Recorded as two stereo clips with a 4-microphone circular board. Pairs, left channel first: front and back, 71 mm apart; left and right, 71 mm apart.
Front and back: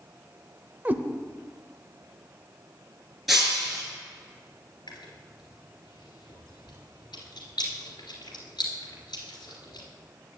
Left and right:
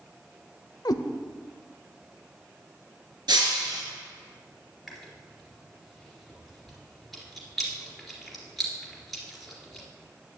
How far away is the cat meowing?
About 0.6 m.